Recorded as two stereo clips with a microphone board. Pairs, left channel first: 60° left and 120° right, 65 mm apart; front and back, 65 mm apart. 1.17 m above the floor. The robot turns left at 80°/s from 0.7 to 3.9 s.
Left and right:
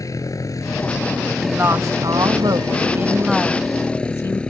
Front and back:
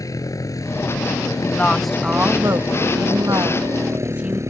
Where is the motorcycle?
30° left; by 4.5 s 135° left.